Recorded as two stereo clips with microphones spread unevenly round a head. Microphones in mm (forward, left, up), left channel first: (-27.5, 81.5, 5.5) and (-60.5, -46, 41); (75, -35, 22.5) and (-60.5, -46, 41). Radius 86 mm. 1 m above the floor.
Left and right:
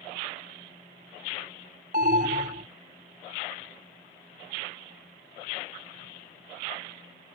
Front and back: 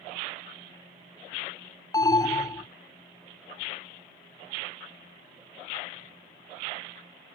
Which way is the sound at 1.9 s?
55° right.